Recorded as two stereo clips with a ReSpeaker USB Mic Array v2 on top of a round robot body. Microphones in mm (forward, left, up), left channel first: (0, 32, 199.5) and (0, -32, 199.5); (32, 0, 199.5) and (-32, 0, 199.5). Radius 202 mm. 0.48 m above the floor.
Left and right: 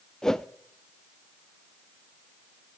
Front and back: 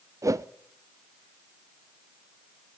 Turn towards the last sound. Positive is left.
turn(degrees=170)